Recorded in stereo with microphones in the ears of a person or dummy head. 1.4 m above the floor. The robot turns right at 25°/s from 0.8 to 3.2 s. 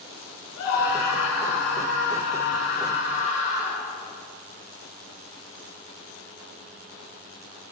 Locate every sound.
0.6 s a scream: 85° left, 4.5 m; by 3.9 s 145° left, 4.5 m